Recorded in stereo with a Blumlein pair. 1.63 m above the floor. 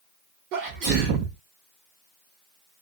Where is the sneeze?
40° right, 0.8 m.